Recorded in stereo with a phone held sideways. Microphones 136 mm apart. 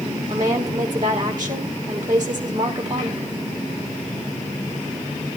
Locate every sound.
0.3 s a woman speaking: 30° right (ahead or behind), 1.4 m